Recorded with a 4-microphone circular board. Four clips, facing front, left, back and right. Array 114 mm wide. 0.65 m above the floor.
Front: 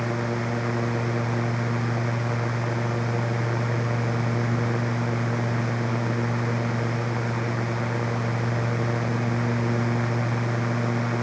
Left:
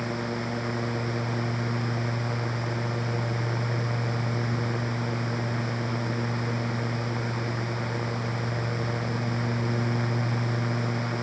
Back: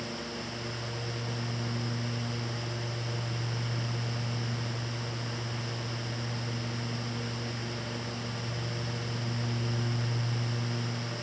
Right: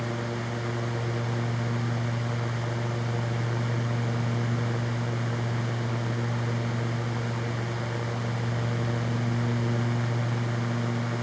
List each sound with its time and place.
Only background noise.